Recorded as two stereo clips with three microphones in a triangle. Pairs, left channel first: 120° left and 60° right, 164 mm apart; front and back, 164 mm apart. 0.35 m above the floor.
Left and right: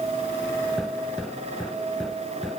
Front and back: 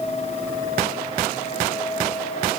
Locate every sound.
Only background noise.